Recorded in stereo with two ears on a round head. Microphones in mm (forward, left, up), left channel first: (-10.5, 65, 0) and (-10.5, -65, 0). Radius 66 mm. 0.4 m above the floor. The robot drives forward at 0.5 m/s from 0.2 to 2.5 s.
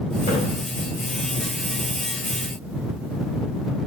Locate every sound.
0.3 s a splash: 55° left (ahead or behind), 2.5 m